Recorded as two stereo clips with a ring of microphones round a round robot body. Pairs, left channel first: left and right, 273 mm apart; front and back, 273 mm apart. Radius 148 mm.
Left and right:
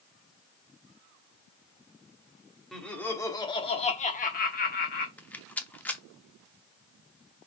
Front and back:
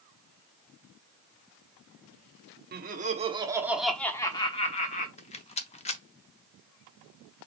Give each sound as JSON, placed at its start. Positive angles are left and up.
{"t": 2.7, "sound": "laughter", "azimuth_deg": 180, "distance_m": 0.9}
{"t": 5.2, "sound": "a rattle", "azimuth_deg": 15, "distance_m": 0.6}